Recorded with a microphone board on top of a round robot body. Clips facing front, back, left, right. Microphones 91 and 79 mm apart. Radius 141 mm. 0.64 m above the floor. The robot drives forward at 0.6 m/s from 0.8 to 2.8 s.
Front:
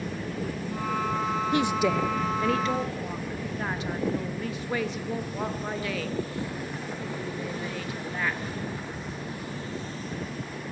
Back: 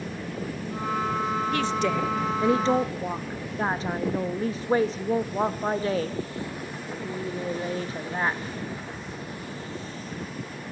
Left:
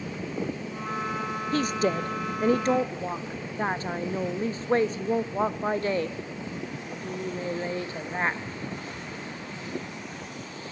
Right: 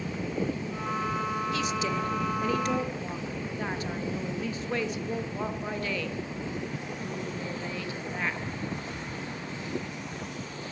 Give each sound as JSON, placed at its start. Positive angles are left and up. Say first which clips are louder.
{"t": 1.5, "sound": "a woman speaking", "louder": "front 4 dB, left 4 dB", "azimuth_deg": 60, "distance_m": 0.9}